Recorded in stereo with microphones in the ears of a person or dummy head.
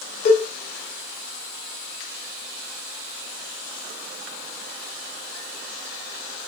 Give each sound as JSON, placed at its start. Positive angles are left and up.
{"t": 0.2, "sound": "a cowbell", "side_deg": 50, "distance_m": 1.8}